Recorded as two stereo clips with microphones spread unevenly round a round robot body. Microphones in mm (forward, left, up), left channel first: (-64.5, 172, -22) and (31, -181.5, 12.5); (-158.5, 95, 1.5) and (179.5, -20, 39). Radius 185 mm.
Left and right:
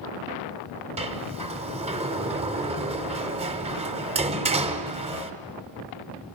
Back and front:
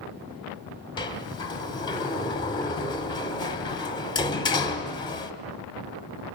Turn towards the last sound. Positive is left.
turn(degrees=-140)